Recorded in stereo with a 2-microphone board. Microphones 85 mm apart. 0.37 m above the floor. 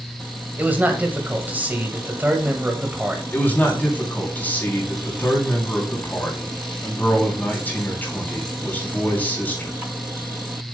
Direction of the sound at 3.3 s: 20° left (ahead or behind).